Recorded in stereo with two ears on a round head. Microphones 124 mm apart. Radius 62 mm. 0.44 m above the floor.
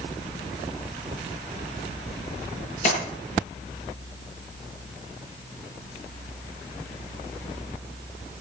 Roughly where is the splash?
Left.